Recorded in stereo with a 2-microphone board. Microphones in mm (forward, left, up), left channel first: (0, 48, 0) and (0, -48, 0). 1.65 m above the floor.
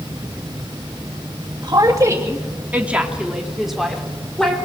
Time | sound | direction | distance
1.6 | a woman speaking | 45° right (ahead or behind) | 2.5 m